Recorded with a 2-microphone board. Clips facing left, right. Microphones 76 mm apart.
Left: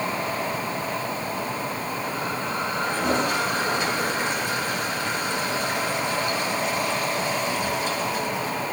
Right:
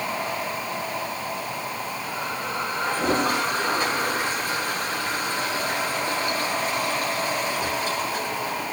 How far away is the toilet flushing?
About 6 m.